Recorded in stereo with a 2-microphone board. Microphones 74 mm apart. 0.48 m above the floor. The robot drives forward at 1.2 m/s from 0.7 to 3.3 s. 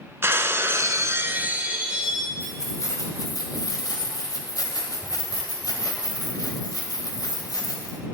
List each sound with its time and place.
0.2 s breaking glass: 35° right (ahead or behind), 0.5 m; by 2.3 s 10° right (ahead or behind), 1.7 m
2.4 s keys jangling: 40° left (ahead or behind), 2.5 m; by 8.0 s 60° left (ahead or behind), 1.8 m